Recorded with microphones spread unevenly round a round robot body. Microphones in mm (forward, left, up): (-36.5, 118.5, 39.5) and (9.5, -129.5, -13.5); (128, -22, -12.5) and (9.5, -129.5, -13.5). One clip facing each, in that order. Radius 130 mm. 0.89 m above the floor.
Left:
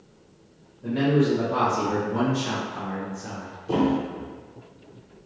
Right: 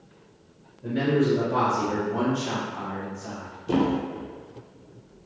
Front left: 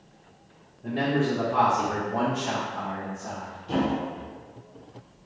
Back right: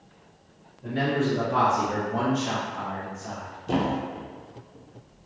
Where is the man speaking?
165° right, 1.4 m; by 3.6 s 95° left, 1.0 m.